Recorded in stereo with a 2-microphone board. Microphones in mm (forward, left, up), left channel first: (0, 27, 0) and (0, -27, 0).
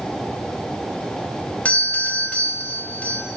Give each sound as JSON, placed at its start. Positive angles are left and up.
{"t": 1.6, "sound": "a doorbell", "side_deg": 30, "distance_m": 0.8}